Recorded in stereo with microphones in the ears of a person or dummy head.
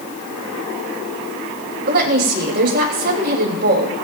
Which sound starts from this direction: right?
A woman speaking, at 1.9 s.